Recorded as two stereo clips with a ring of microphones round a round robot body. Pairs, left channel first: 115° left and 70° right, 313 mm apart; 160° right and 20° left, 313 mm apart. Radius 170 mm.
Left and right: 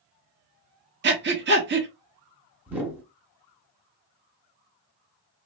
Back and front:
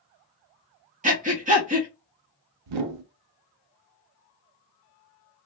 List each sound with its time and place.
1.0 s breathing: 30° right, 0.9 m
2.7 s a whoosh: 20° left, 0.5 m